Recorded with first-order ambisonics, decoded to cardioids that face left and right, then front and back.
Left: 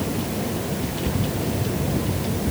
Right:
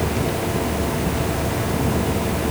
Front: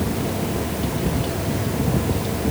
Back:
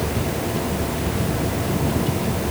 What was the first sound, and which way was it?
Only background noise.